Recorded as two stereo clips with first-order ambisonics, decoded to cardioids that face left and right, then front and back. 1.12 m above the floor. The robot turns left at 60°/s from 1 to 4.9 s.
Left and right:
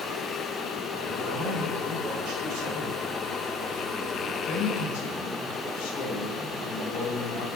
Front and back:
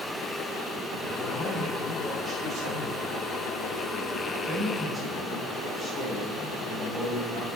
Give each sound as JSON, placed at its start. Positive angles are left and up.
{"t": 1.2, "sound": "a man speaking", "azimuth_deg": -40, "distance_m": 6.5}